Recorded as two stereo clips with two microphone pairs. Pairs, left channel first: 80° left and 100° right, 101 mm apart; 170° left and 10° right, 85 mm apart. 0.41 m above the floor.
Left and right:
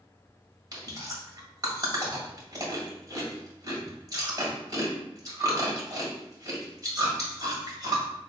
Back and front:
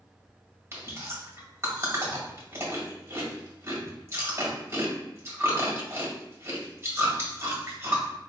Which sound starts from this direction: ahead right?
Chewing, at 0.7 s.